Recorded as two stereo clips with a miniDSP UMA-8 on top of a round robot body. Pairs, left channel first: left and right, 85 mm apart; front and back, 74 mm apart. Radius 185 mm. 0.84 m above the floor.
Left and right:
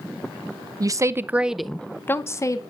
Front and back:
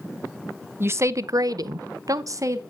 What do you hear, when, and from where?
0.8 s a woman speaking: 125° right, 0.9 m; by 2.6 s 135° left, 1.2 m